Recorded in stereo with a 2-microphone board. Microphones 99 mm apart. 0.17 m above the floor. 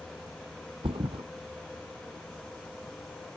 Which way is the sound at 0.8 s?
65° right (ahead or behind).